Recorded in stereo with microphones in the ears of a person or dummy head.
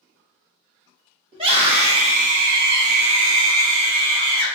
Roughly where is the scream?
Right.